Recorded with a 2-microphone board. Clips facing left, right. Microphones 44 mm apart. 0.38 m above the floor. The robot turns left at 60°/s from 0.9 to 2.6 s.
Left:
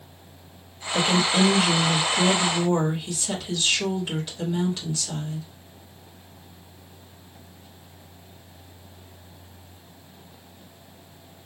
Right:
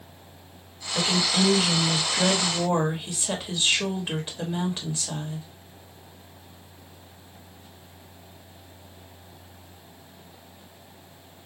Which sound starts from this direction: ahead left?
A woman speaking, at 0.9 s.